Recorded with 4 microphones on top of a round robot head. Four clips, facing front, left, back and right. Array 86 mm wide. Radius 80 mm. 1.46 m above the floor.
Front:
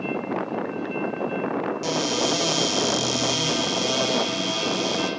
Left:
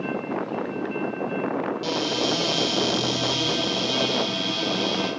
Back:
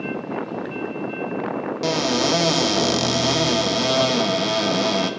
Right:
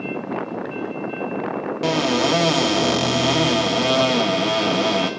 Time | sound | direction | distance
1.8 | a cupboard door | 120° right | 0.7 m